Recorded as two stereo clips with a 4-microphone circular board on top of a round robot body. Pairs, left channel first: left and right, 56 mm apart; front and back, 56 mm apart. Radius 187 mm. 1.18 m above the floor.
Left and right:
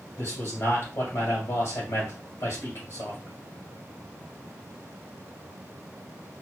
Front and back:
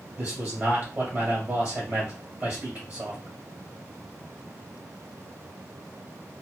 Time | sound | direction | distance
0.2 | a man speaking | 110° left | 1.5 m